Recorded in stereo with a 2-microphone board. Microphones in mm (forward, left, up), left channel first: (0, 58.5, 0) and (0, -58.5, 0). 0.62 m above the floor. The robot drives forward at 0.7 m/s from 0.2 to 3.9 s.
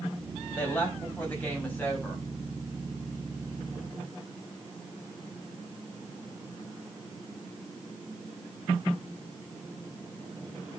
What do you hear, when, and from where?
0.6 s a woman speaking: 15° left (ahead or behind), 4 m